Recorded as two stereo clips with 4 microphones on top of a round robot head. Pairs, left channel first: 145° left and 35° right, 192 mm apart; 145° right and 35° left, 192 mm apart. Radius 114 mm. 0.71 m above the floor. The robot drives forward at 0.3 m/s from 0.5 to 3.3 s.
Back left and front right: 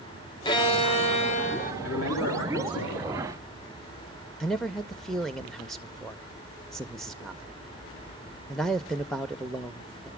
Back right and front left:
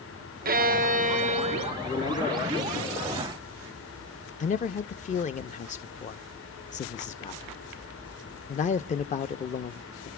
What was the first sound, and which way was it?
A violin, 80° left.